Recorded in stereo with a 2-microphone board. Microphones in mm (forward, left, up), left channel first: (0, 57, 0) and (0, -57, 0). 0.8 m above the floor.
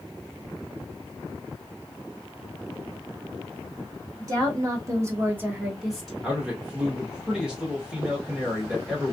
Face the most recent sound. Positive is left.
turn(degrees=-5)  # may be behind; listen again after turning